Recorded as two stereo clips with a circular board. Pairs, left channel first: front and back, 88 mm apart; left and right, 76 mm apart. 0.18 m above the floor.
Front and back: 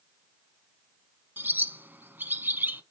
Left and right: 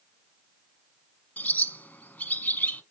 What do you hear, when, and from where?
1.4 s a bird: 135° left, 1.3 m